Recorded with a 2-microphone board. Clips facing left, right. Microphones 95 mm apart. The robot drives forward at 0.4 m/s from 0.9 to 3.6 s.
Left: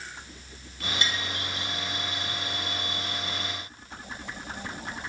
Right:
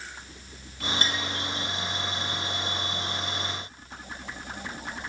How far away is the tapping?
About 0.7 m.